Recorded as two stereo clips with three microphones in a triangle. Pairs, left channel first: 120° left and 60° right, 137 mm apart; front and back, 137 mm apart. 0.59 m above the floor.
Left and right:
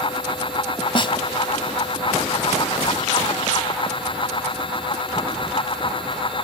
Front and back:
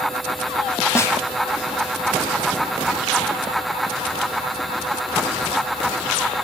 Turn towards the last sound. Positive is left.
turn(degrees=70)